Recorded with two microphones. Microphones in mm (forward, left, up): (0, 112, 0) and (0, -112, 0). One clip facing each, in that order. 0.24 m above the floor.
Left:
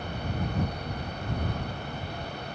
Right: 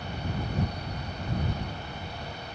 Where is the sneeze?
No sneeze in this recording.